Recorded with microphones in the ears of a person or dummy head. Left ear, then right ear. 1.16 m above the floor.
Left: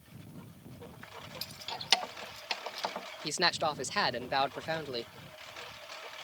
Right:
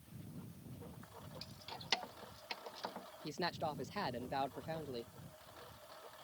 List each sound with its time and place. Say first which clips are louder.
0.0 s a lawn mower: left 4 dB; 60° left (ahead or behind)
1.4 s keys jangling: left 11 dB; 35° left (ahead or behind)
3.2 s a man speaking: left 11 dB; 60° left (ahead or behind)